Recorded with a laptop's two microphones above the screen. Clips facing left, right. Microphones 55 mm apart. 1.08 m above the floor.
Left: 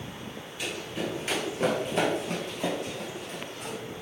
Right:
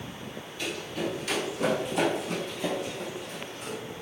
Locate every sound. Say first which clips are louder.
0.6 s running footsteps: right 1 dB; 10° left (ahead or behind), 1.1 m; by 3.8 s 60° left (ahead or behind), 2.5 m